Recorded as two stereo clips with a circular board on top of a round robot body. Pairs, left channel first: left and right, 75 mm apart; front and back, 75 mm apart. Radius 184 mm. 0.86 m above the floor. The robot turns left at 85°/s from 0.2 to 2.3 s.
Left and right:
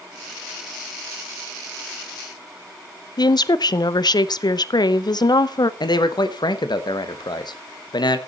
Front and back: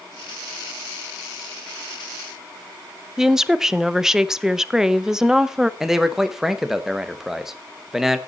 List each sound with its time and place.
3.2 s a woman speaking: 95° left, 0.9 m
5.8 s a man speaking: 95° left, 1.5 m